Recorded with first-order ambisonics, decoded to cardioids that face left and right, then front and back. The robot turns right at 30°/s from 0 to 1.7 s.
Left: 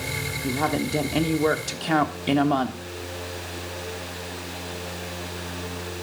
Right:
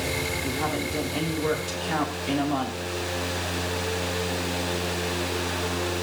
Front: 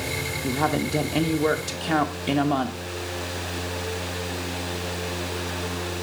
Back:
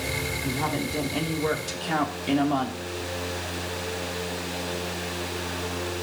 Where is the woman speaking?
30° left, 1.3 m; by 2.8 s 65° left, 1.3 m.